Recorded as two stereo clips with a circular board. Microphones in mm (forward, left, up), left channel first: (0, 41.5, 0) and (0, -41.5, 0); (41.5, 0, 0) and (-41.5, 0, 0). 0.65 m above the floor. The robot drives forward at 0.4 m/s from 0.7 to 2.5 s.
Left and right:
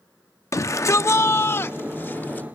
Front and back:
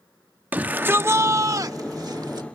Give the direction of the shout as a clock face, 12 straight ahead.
8 o'clock.